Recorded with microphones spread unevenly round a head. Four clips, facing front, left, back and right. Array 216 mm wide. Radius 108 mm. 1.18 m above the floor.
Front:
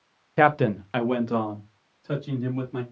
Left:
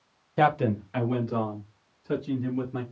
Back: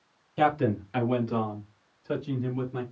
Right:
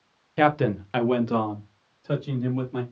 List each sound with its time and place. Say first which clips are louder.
0.4 s a man speaking: right 2 dB, front 4 dB; 5° left, 0.8 m; by 2.8 s 70° right, 4 m